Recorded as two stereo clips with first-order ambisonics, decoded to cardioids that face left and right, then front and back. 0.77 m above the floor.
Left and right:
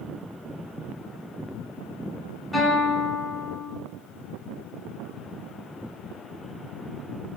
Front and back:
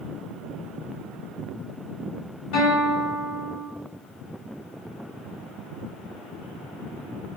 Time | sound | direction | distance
2.5 | a guitar | 10° left | 1.6 m